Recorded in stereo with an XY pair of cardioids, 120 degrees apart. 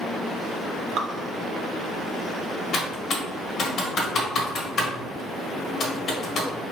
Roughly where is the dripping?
Ahead right.